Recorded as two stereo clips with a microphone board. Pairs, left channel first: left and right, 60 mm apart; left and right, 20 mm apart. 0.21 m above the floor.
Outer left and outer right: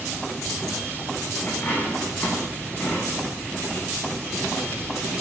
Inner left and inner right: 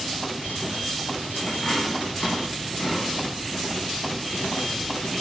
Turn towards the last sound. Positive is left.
turn(degrees=25)  # may be behind; listen again after turning